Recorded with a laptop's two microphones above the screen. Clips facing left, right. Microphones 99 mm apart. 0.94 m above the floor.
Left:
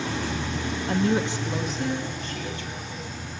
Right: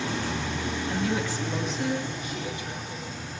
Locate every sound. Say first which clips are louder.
0.9 s a woman speaking: left 6 dB; 60° left (ahead or behind), 0.9 m; by 3.1 s 20° right (ahead or behind), 3.5 m